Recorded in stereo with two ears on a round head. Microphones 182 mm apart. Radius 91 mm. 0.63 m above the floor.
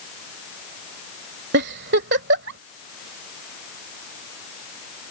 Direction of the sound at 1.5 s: 55° right (ahead or behind).